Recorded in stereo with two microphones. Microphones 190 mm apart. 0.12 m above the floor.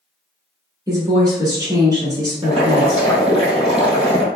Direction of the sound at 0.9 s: 20° right (ahead or behind).